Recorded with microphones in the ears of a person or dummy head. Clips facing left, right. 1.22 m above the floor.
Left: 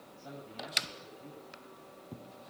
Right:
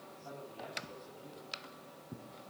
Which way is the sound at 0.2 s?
25° left (ahead or behind).